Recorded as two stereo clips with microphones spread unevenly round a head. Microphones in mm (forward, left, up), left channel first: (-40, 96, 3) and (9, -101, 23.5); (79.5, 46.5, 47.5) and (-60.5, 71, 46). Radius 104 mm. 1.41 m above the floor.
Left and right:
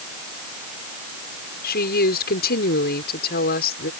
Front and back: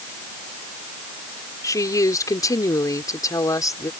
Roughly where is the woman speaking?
Ahead left.